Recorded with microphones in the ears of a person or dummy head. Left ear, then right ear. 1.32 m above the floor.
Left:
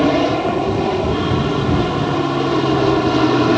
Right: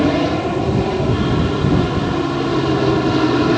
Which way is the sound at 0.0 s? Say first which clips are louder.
Left 2 dB; 10° left (ahead or behind).